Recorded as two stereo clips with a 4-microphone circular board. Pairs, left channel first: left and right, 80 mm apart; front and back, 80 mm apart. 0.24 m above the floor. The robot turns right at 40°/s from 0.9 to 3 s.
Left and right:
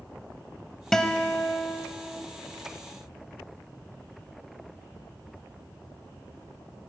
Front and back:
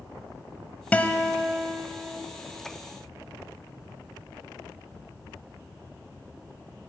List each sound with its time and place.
0.9 s a guitar: 20° left, 0.6 m; by 2.2 s 70° left, 0.6 m